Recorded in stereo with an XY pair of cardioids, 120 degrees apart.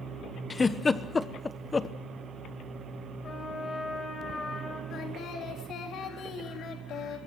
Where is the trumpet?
30° left, 5.5 m.